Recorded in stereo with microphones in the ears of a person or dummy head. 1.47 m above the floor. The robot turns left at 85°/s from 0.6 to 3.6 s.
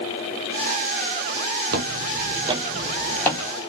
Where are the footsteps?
45° right (ahead or behind), 2 m; by 3.4 s 20° left (ahead or behind), 2.5 m.